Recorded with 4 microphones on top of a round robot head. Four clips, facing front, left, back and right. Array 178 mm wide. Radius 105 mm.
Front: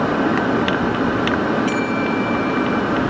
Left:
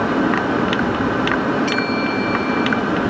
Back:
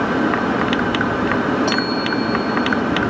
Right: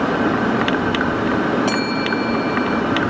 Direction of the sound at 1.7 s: 145° right.